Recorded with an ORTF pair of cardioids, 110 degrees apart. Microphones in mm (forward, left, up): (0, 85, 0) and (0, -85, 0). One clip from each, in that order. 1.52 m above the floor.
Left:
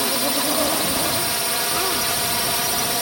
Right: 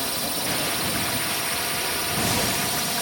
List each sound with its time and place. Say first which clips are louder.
0.0 s a drone: left 6 dB; 35° left